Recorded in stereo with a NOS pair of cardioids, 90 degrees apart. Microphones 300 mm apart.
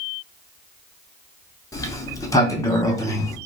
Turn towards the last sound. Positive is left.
turn(degrees=10)